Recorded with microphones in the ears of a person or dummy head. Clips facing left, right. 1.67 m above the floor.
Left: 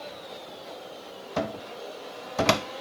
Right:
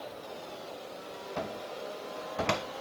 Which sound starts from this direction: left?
A cupboard door, at 1.4 s.